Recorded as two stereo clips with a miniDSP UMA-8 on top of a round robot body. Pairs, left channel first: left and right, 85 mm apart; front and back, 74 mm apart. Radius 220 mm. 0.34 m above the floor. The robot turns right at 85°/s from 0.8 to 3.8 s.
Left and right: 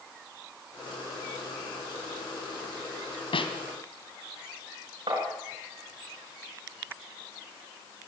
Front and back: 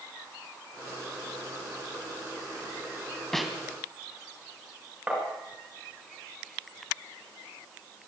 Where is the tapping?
110° right, 7 m.